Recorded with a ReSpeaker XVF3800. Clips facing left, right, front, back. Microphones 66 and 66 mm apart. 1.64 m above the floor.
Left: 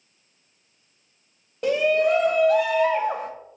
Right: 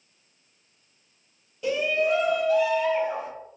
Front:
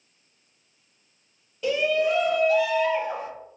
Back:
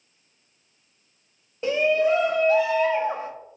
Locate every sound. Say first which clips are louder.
1.6 s a shout: left 4 dB, back 2 dB; 125° left, 0.5 m